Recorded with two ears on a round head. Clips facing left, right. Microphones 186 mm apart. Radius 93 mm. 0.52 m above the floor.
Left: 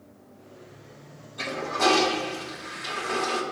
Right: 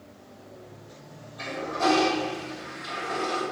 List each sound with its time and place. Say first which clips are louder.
1.4 s a toilet flushing: left 1 dB; 65° left (ahead or behind), 1.9 m